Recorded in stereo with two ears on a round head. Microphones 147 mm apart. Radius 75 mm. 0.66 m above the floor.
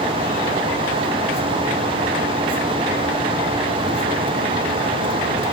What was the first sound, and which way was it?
Only background noise.